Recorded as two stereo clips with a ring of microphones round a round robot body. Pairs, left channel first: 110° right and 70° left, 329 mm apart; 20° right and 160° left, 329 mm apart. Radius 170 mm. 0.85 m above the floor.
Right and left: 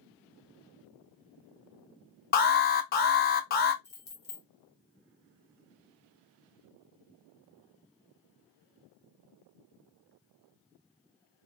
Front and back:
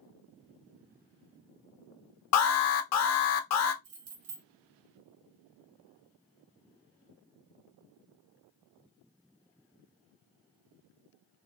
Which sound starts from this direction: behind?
Keys jangling, at 3.8 s.